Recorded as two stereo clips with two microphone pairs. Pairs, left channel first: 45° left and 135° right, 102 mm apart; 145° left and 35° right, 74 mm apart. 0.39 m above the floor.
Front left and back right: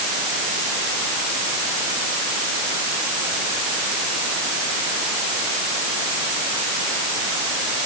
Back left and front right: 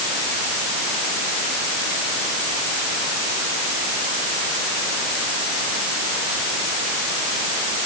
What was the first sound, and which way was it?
Only background noise.